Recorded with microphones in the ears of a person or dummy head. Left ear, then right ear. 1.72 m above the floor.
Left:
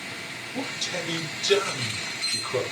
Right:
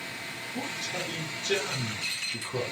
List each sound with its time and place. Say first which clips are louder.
0.5 s a man speaking: left 4 dB; 80° left, 3 m